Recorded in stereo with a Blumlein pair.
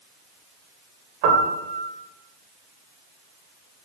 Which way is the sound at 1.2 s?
45° right.